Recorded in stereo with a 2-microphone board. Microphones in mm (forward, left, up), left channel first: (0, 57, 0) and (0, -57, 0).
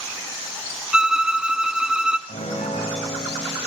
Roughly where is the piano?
Left.